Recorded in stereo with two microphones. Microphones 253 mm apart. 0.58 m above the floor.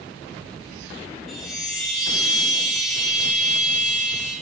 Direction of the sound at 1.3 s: Centre (ahead or behind).